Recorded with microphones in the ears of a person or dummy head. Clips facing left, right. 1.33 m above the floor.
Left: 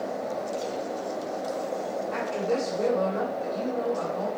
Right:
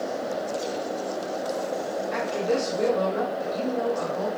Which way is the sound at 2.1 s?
35° right (ahead or behind).